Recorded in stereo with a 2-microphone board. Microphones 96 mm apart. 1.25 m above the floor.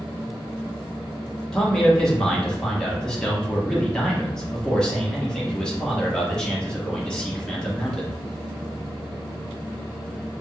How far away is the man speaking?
About 1.2 m.